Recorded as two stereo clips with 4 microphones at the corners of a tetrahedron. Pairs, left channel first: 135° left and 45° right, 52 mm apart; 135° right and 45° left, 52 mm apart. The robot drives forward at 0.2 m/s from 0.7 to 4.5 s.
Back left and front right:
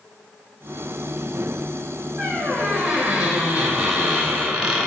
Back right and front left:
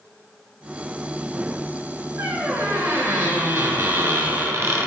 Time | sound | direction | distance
2.2 | a squeak | 25° left | 1.5 m